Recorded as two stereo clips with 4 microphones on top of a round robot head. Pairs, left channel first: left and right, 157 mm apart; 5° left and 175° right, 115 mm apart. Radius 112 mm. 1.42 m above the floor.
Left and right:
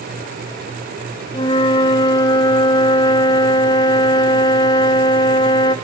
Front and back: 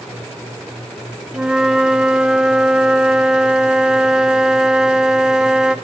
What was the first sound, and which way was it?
A flute, 110° left.